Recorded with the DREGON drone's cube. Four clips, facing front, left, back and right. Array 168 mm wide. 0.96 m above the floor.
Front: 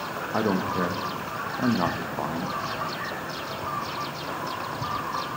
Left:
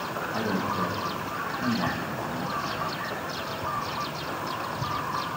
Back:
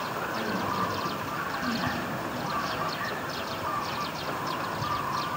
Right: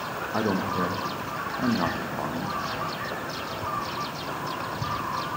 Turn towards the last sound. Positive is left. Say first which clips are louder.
# right 3 dB, front 7 dB
turn(degrees=-30)